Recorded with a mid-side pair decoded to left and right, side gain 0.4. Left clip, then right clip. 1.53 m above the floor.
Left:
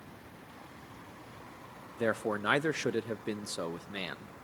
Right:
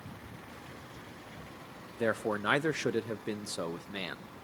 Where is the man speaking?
10° left, 1.0 m.